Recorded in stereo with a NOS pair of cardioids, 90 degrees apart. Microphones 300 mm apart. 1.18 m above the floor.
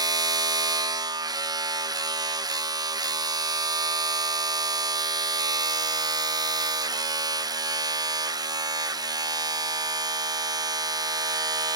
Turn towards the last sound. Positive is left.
turn(degrees=-15)